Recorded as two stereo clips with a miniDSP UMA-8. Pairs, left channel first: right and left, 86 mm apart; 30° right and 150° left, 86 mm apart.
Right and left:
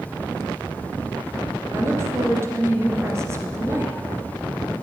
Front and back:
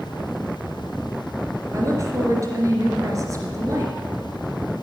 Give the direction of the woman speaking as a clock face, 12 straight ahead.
8 o'clock.